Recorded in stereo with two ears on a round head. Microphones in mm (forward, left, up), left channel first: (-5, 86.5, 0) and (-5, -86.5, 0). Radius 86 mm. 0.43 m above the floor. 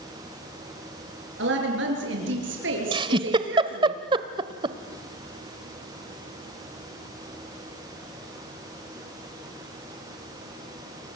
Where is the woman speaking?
65° right (ahead or behind), 7 m.